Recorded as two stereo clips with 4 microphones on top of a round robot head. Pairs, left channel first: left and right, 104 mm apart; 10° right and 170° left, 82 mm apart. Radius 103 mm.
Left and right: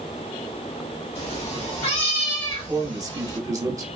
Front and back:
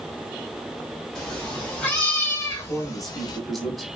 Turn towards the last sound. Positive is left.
turn(degrees=-100)